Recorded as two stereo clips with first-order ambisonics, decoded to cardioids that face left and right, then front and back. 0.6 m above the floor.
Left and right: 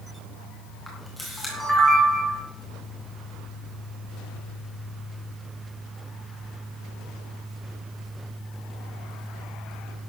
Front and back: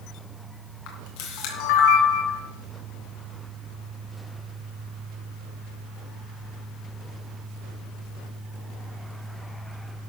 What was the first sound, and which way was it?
A camera shutter, 5° left.